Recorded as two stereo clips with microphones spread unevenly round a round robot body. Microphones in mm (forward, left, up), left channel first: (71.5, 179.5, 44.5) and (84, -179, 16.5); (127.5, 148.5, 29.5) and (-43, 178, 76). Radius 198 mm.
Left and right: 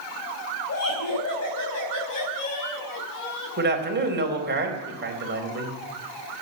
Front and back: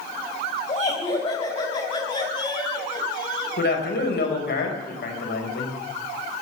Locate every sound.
0.7 s laughter: 40° left, 3.5 m; by 3.5 s 50° left, 6.5 m
3.6 s a man speaking: 30° right, 4.5 m